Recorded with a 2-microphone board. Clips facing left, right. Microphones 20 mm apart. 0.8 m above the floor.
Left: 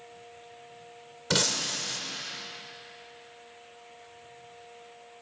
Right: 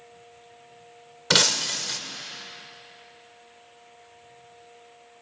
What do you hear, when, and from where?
1.3 s breaking glass: 45° right (ahead or behind), 1.3 m